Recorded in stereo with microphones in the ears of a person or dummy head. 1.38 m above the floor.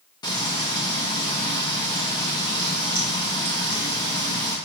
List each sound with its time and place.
0.2 s frying: 25° left (ahead or behind), 0.7 m